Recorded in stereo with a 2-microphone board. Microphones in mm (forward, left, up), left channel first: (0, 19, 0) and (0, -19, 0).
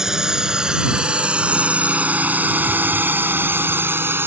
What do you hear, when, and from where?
0.0 s a drone: 15° right (ahead or behind); by 4.3 s 70° right (ahead or behind)